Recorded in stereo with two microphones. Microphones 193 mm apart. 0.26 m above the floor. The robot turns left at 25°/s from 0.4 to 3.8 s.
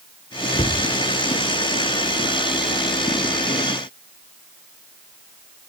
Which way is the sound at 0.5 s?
30° left (ahead or behind).